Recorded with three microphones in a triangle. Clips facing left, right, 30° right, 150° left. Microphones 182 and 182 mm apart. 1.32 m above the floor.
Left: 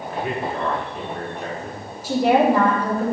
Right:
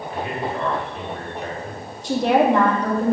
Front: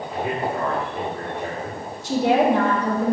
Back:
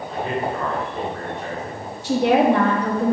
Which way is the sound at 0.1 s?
50° left.